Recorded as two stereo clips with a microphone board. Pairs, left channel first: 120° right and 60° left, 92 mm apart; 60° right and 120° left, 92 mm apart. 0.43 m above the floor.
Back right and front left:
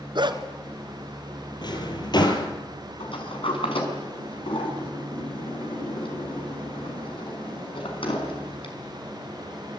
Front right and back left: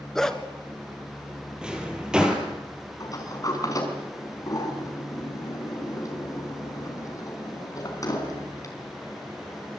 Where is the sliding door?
110° right, 5.5 m.